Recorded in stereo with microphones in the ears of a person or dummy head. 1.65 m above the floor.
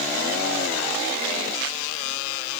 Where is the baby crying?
No baby crying in this recording.